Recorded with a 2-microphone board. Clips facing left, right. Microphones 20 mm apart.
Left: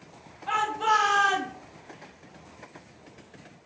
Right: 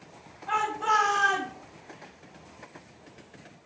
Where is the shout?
60° left (ahead or behind), 3.5 m; by 1.5 s 70° left (ahead or behind), 3.5 m.